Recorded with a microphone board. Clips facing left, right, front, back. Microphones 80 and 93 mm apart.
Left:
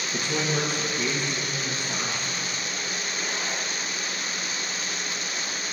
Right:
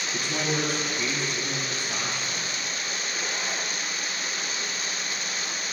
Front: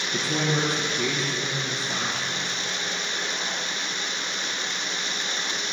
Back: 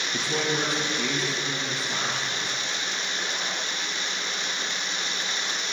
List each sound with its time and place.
0.1 s a woman speaking: 25° left, 2.5 m